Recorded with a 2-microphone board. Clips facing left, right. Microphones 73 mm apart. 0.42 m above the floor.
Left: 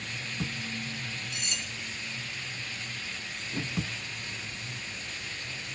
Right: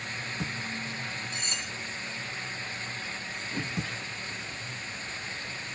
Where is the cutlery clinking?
40° right (ahead or behind), 2.5 m.